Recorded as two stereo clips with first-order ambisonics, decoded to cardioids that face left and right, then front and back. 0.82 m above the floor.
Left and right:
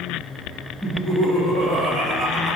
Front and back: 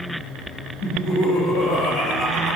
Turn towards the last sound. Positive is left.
turn(degrees=-60)